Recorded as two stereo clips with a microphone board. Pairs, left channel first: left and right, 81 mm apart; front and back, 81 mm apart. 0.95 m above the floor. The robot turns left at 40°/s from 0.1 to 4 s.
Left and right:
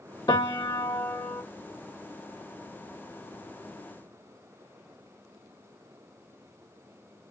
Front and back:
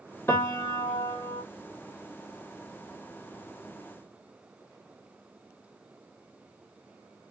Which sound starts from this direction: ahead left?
A piano, at 0.3 s.